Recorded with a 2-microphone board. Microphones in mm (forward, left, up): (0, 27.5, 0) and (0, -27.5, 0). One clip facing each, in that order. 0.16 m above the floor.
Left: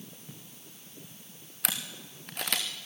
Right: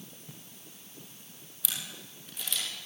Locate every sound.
1.6 s a camera shutter: 60° left (ahead or behind), 3.5 m